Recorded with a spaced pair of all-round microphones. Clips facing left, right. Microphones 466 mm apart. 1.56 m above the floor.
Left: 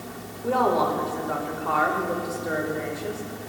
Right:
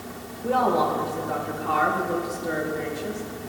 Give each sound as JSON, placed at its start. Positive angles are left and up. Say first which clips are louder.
{"t": 0.4, "sound": "a woman speaking", "louder": "even", "side_deg": -50, "distance_m": 1.9}